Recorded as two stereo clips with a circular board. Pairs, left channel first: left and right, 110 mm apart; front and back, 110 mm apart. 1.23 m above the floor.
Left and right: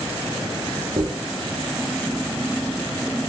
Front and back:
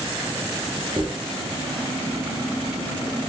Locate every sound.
1.0 s a dropped coin: 115° right, 0.8 m